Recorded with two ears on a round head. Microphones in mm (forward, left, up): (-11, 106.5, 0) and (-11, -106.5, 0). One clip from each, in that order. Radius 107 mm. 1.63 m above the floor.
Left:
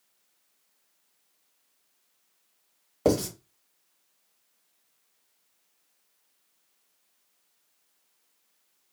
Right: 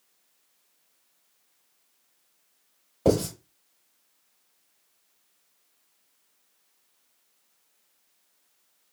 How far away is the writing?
About 1.6 m.